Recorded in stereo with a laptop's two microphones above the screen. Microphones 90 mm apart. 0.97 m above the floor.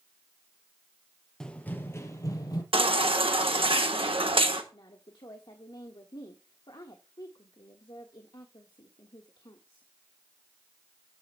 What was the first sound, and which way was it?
Running footsteps, 5° left (ahead or behind).